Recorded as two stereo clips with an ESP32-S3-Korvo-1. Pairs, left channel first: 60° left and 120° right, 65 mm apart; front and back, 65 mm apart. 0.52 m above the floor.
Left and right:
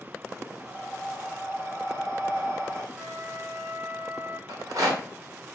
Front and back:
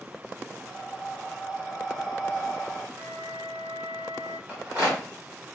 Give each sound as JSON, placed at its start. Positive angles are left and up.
{"t": 0.6, "sound": "breathing", "azimuth_deg": -95, "distance_m": 1.7}
{"t": 3.0, "sound": "a flute", "azimuth_deg": -160, "distance_m": 1.1}
{"t": 4.5, "sound": "a rattle", "azimuth_deg": -120, "distance_m": 2.5}